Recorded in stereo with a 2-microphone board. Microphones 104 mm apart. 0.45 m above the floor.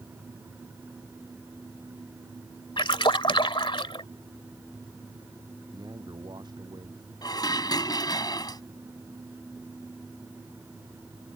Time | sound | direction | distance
2.8 | a splash | 55° left (ahead or behind) | ?
5.7 | a man speaking | 45° right (ahead or behind) | ?
7.2 | dishes clattering | 40° left (ahead or behind) | ?